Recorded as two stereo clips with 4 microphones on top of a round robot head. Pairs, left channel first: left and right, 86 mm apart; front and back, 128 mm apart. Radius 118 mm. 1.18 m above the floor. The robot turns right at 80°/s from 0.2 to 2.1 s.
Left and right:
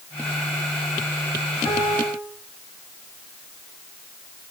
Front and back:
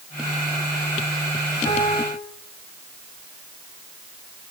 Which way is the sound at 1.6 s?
55° left.